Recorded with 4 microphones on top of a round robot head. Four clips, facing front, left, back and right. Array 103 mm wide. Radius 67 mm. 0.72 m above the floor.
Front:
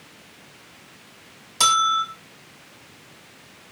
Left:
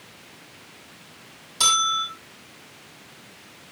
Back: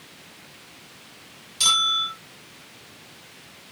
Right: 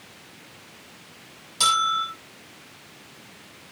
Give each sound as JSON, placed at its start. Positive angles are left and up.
{"t": 1.6, "sound": "a bell", "azimuth_deg": -5, "distance_m": 6.0}